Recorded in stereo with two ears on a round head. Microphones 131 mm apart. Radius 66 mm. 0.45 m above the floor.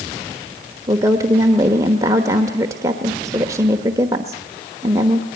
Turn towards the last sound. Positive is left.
turn(degrees=-20)  # may be behind; listen again after turning